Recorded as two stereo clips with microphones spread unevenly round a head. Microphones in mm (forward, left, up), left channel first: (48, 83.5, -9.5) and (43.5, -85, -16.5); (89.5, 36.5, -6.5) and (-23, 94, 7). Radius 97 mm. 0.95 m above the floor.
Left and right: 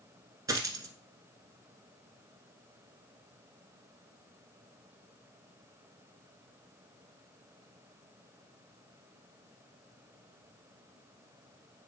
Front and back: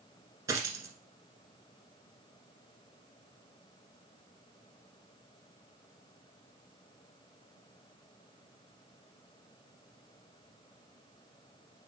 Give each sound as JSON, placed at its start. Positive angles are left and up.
{"t": 0.5, "sound": "a dropped coin", "azimuth_deg": -160, "distance_m": 1.1}